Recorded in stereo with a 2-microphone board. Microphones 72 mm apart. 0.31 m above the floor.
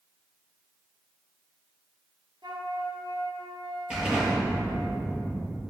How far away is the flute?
About 1.4 m.